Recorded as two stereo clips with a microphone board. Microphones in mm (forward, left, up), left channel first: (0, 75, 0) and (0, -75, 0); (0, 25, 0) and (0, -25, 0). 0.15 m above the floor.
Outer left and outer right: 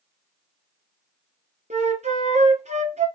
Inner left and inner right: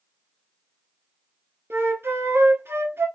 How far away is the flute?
About 1.1 m.